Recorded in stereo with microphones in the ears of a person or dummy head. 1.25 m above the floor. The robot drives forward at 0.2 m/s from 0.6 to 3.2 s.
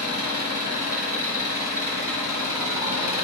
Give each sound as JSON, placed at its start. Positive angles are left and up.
{"t": 0.0, "sound": "an engine running", "side_deg": -15, "distance_m": 5.0}